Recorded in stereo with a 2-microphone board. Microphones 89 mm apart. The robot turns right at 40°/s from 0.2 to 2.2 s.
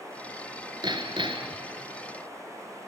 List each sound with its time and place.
0.8 s hammering: 115° right, 1.6 m; by 1.6 s 85° right, 1.6 m